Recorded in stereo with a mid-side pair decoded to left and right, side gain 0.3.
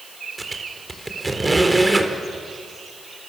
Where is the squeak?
25° right, 3.5 m.